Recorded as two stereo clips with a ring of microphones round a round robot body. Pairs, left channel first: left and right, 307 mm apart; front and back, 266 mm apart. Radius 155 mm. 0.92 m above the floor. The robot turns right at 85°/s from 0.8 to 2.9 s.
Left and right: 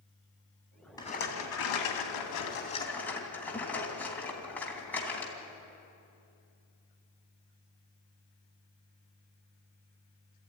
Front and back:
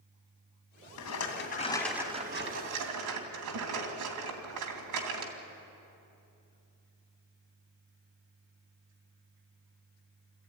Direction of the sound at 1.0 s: 10° left.